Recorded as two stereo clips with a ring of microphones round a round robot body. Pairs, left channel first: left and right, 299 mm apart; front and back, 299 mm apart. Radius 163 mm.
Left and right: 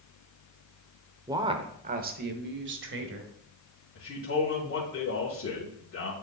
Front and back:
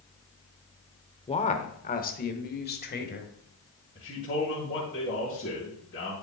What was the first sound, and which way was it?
A woman speaking, 30° right.